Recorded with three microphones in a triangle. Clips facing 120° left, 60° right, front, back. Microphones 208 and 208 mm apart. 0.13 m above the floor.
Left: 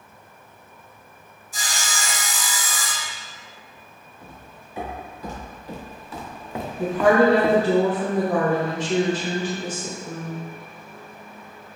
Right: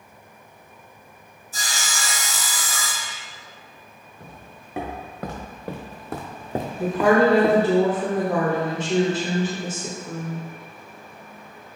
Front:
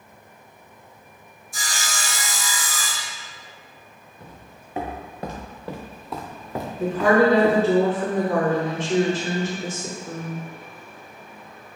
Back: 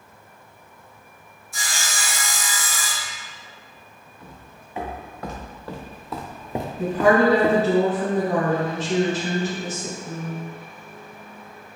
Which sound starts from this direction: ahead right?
Footsteps, at 4.2 s.